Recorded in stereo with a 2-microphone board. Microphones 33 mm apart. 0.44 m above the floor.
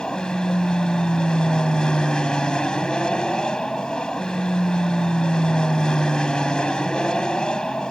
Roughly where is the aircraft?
Left.